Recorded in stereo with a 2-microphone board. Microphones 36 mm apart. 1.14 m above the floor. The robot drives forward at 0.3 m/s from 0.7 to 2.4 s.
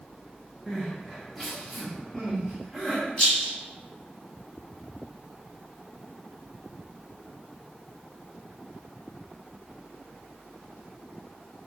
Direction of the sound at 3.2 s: 15° left (ahead or behind).